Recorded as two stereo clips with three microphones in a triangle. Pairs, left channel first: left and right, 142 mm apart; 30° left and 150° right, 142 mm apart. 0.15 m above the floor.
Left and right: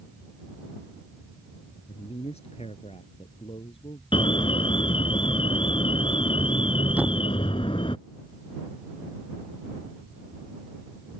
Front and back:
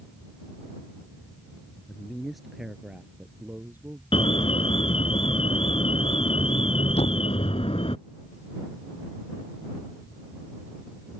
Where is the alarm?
55° left.